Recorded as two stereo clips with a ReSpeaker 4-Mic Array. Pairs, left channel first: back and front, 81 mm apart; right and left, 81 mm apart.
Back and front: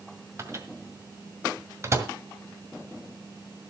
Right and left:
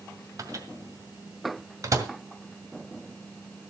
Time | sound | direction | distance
0.4 | a microwave | 50° left | 2.0 m